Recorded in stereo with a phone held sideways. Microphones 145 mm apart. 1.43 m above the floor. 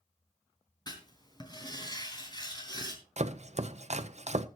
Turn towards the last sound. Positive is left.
turn(degrees=-50)  # may be behind; listen again after turning